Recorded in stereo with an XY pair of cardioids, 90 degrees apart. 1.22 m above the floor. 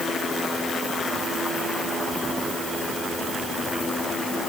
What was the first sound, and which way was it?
Only background noise.